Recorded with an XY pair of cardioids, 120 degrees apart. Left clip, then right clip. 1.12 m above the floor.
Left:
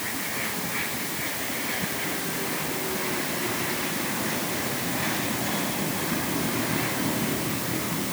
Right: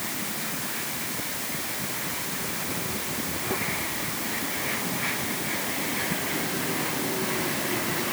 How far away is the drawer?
I don't hear a drawer.